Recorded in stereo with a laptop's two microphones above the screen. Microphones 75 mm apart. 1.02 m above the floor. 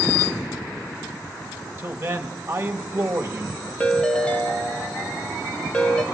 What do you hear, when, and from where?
1.8 s a man speaking: 30° right (ahead or behind), 1.4 m
3.8 s a ringtone: 10° left (ahead or behind), 0.7 m